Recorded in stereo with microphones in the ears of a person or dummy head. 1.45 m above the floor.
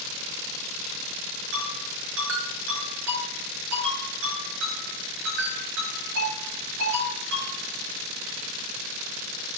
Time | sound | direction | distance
1.5 | a ringtone | 65° right (ahead or behind) | 9 m